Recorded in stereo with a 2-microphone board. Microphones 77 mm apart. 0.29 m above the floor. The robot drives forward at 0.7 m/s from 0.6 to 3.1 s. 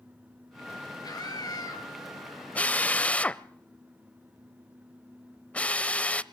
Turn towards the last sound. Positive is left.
turn(degrees=15)  # may be behind; listen again after turning